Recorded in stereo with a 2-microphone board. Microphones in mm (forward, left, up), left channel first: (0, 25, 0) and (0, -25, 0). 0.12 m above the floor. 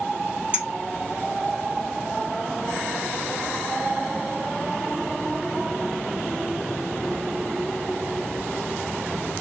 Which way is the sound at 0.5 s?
20° right (ahead or behind).